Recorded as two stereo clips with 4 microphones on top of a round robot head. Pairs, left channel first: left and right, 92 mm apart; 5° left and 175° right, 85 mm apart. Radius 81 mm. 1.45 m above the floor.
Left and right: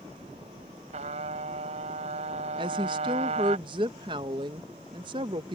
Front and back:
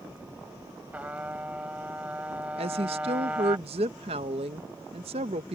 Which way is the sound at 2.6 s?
140° right.